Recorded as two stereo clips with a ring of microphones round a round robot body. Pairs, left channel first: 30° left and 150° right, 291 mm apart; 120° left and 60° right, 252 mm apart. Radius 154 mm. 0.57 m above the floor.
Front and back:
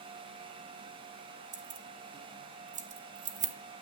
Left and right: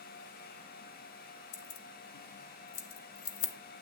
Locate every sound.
1.5 s keys jangling: 145° left, 0.9 m